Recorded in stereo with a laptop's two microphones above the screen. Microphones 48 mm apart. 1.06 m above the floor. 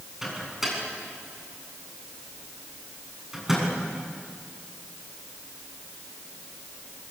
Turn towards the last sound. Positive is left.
turn(degrees=-5)  # may be behind; listen again after turning